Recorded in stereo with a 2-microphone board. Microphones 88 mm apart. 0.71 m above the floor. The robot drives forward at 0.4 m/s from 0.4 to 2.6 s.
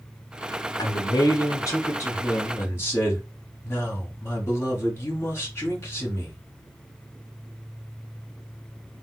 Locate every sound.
0.8 s a man speaking: 45° left (ahead or behind), 0.9 m; by 6.4 s 30° left (ahead or behind), 1.3 m